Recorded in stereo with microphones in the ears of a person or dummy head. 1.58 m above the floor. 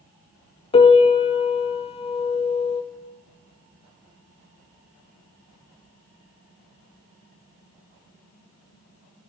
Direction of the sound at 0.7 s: 35° left (ahead or behind).